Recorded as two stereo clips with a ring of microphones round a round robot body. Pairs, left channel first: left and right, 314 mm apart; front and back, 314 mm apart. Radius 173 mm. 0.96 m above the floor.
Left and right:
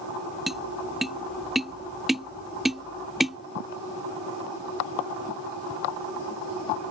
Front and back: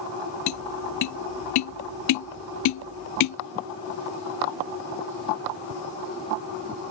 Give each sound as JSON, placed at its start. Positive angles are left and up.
{"t": 0.5, "sound": "tapping", "azimuth_deg": 0}